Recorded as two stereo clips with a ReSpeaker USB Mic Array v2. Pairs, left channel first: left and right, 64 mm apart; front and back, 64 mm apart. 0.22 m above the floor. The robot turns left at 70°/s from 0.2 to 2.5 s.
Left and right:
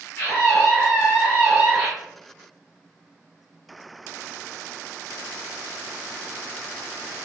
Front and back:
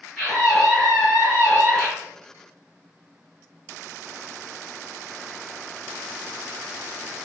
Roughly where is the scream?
Left.